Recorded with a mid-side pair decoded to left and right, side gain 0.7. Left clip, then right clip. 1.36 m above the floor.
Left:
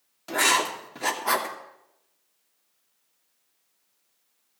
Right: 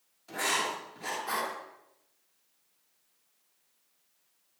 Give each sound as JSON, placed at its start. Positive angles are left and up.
{"t": 0.3, "sound": "writing", "azimuth_deg": 60, "distance_m": 2.5}